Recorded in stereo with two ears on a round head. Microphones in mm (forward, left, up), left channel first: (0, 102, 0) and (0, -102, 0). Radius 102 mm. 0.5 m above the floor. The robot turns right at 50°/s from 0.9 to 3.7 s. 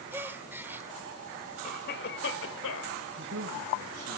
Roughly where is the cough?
Ahead left.